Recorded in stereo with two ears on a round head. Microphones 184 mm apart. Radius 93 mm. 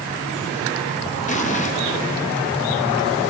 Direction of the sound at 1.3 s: 35° left (ahead or behind).